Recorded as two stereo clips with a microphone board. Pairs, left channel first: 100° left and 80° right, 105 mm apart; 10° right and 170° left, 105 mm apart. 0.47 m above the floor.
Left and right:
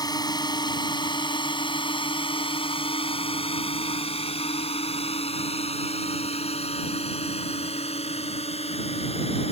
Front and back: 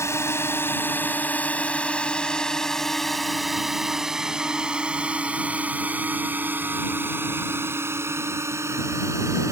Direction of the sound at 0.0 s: 50° left.